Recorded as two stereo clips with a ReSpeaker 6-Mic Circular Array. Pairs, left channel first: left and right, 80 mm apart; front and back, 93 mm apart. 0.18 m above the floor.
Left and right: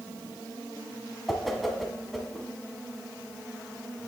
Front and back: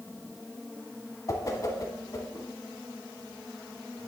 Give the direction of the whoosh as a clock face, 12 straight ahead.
12 o'clock.